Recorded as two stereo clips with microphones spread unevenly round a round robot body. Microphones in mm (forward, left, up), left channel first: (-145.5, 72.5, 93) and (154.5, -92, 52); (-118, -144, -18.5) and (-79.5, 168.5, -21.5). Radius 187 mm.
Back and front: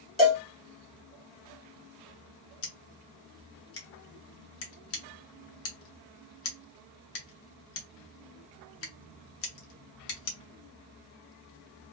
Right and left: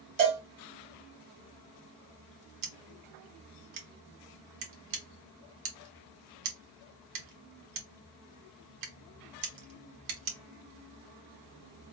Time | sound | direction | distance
0.2 | a cowbell | 55° left | 1.7 m
2.6 | scissors | 95° left | 0.9 m